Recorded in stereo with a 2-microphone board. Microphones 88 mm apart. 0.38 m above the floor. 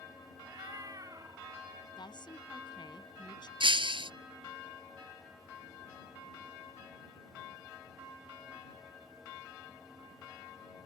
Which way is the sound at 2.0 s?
60° left (ahead or behind).